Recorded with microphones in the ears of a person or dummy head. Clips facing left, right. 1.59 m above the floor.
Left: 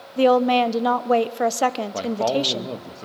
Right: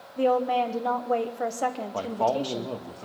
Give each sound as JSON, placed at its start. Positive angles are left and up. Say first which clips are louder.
{"t": 0.2, "sound": "a woman speaking", "louder": "left 7 dB", "side_deg": 80, "distance_m": 1.1}
{"t": 1.9, "sound": "a man speaking", "louder": "left 2 dB", "side_deg": 25, "distance_m": 1.6}